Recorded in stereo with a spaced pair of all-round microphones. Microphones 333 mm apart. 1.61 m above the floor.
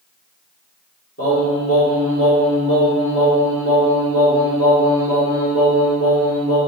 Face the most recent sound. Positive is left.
turn(degrees=45)  # may be behind; listen again after turning